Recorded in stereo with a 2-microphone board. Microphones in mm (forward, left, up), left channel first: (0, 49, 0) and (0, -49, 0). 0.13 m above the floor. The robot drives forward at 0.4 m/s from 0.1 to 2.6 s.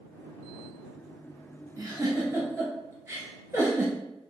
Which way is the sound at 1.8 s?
30° right (ahead or behind).